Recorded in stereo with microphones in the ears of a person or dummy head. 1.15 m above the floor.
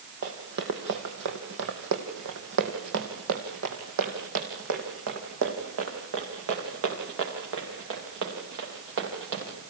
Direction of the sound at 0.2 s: 50° right (ahead or behind).